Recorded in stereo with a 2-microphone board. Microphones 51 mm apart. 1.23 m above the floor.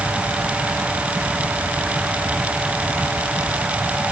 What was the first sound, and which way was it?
Only background noise.